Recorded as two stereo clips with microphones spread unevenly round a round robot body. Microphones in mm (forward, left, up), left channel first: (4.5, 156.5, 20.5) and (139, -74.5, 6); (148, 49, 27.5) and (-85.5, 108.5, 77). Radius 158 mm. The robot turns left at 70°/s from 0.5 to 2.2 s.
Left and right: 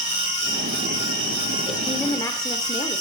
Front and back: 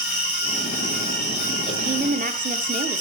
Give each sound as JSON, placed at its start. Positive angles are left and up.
{"t": 0.0, "sound": "an insect", "azimuth_deg": -30, "distance_m": 5.0}
{"t": 1.7, "sound": "a woman speaking", "azimuth_deg": -140, "distance_m": 0.9}